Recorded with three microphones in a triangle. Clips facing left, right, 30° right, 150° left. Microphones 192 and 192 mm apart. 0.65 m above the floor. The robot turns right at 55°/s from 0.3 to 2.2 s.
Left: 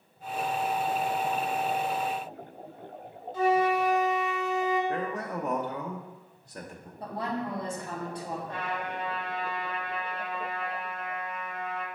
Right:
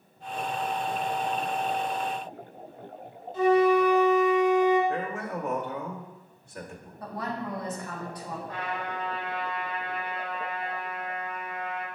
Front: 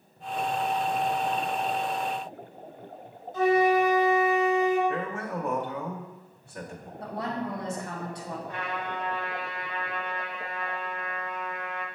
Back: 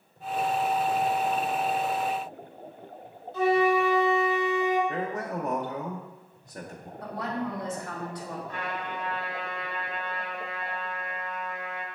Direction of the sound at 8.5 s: 40° left.